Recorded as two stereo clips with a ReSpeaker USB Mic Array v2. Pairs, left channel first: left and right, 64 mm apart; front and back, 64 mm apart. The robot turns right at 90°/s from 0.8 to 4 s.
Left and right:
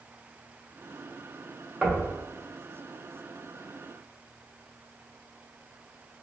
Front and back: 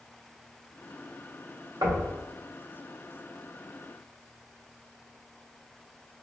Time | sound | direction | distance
1.8 | knocking | 170° right | 0.7 m